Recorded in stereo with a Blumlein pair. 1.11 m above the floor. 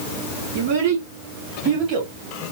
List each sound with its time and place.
0.6 s a child speaking: 45° right, 2 m; by 2.1 s 30° right, 1.4 m